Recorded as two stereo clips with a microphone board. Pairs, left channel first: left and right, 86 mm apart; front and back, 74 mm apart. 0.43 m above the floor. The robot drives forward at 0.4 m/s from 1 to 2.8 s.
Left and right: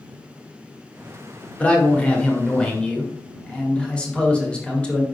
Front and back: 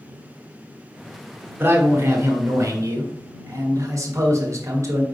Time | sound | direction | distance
1.6 | a man speaking | 155° left | 1.4 m